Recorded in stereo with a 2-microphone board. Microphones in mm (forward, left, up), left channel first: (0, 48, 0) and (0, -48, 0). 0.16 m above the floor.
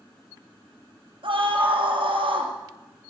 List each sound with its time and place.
1.2 s a scream: 65° right (ahead or behind), 4 m